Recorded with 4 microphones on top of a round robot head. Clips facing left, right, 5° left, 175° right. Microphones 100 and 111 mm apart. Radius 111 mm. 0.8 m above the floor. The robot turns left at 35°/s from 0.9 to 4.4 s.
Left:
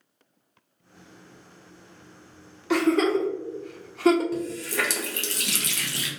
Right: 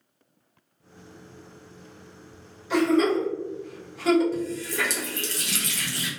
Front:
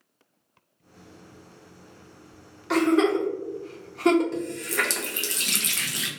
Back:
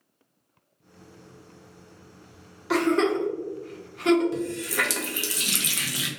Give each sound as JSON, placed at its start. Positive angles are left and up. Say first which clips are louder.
{"t": 2.7, "sound": "a giggle", "louder": "even, front 2 dB", "azimuth_deg": 100, "distance_m": 0.7}
{"t": 4.3, "sound": "a running tap", "louder": "even, back 1 dB", "azimuth_deg": 105, "distance_m": 0.6}